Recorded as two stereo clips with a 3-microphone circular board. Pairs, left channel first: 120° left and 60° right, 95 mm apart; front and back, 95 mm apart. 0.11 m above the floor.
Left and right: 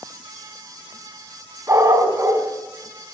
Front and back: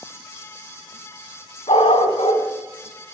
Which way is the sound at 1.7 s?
Straight ahead.